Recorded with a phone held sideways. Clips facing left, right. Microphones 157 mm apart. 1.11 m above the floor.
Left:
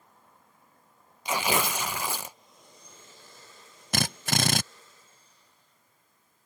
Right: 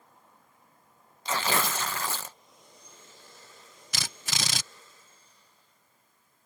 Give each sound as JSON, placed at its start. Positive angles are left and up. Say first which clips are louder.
{"t": 1.2, "sound": "tearing paper", "louder": "left 2 dB", "side_deg": 10}
{"t": 3.9, "sound": "a drill", "louder": "left 10 dB", "side_deg": 50}